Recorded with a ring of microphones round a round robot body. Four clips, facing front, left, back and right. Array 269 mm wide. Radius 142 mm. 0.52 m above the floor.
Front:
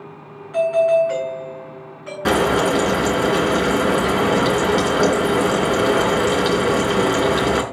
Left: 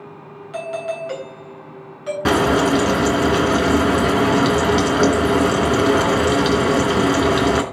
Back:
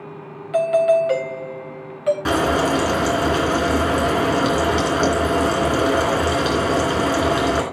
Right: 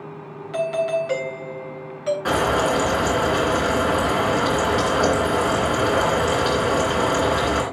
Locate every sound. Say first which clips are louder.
0.5 s a doorbell: right 4 dB, even; 170° right, 3.5 m
2.2 s frying: left 5 dB, front 5 dB; 85° left, 3 m